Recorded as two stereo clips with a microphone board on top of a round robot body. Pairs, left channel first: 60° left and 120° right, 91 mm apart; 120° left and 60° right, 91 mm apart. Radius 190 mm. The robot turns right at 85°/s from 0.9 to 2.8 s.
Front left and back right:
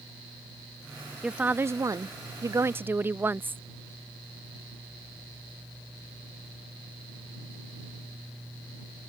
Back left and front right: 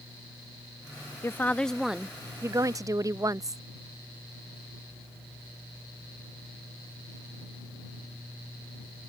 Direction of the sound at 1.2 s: 160° left.